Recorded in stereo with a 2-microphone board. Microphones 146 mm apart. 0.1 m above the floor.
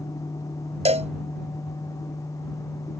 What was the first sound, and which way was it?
A cowbell, 50° right (ahead or behind).